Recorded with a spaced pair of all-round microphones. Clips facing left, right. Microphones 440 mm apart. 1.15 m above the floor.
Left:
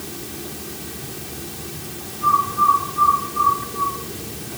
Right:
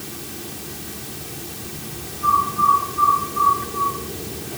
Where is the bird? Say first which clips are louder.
Even; 25° left (ahead or behind), 8 m.